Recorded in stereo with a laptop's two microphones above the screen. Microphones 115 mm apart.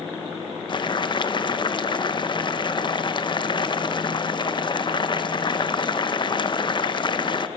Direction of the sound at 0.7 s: 45° left (ahead or behind).